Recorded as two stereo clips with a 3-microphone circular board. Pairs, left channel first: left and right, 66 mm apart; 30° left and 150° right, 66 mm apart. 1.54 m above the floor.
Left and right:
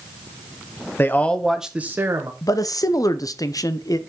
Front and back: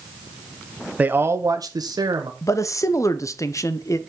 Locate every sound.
1.0 s a man speaking: 145° left, 1.2 m; by 2.3 s 135° right, 1.6 m
2.4 s a man speaking: 65° left, 0.7 m